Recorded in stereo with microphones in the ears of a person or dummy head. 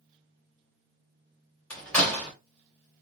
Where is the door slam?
5° left (ahead or behind), 2.5 m.